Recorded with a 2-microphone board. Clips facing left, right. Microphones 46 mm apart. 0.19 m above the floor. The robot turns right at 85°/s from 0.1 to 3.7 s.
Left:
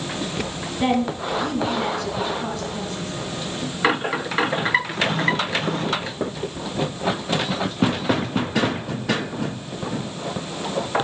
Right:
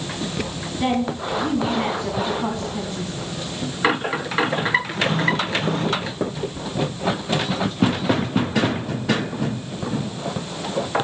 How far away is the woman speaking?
About 1.1 m.